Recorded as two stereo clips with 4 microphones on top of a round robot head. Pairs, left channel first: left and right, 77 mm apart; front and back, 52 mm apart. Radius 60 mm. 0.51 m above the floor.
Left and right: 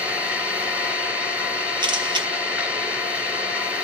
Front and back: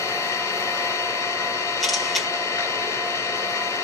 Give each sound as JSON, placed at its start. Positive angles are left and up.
{"t": 0.0, "sound": "an engine running", "azimuth_deg": -15, "distance_m": 4.5}
{"t": 1.8, "sound": "a camera shutter", "azimuth_deg": -90, "distance_m": 1.8}